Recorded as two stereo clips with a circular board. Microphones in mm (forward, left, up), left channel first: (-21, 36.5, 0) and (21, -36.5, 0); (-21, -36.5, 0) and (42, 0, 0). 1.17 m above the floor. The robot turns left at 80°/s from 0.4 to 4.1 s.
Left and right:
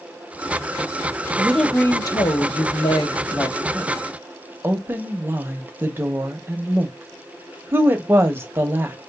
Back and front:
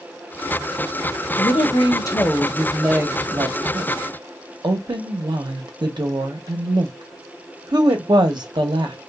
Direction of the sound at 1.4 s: 135° right.